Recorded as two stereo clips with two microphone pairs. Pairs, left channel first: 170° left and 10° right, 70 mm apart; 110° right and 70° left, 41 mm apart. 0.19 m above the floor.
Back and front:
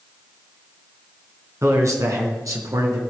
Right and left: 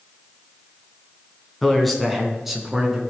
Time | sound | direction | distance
1.6 | a man speaking | 20° right | 2.5 m